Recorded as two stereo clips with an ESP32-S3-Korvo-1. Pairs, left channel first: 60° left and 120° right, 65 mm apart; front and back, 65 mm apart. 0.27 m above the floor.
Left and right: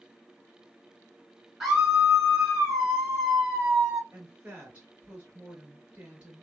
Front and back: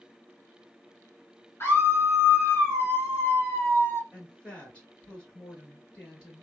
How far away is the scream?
About 2 m.